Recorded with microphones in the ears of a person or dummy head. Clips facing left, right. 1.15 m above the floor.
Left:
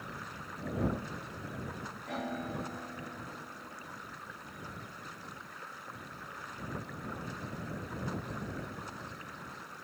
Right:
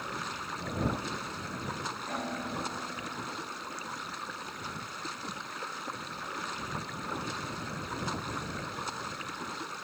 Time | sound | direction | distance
0.0 | running water | 75° right (ahead or behind) | ?
2.1 | a piano | centre (ahead or behind) | ?